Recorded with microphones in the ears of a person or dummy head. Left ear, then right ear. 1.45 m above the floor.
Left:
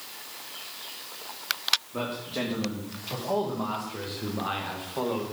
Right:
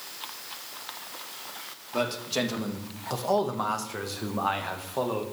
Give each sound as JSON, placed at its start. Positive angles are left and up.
{"t": 1.9, "sound": "a man speaking", "side_deg": -85, "distance_m": 1.8}